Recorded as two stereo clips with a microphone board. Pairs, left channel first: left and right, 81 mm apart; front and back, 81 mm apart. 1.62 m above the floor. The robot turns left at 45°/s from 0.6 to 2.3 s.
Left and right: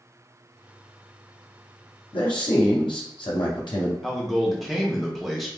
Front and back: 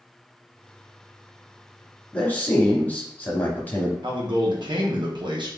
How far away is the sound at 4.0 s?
About 1.0 m.